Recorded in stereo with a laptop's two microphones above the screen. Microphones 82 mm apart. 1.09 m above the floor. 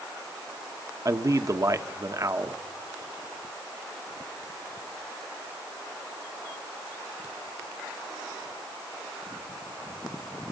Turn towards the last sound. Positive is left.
turn(degrees=-40)  # may be behind; listen again after turning